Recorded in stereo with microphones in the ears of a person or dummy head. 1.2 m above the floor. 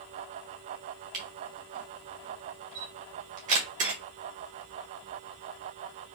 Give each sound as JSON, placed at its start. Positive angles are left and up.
{"t": 1.1, "sound": "a camera shutter", "side_deg": -40, "distance_m": 1.3}